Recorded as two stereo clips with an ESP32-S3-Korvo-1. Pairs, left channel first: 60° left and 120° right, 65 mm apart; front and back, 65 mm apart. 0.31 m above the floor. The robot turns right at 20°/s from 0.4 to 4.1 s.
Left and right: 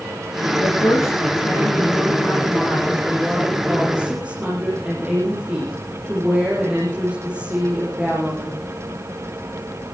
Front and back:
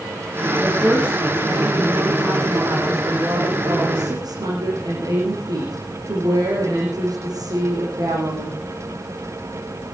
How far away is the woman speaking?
About 8 m.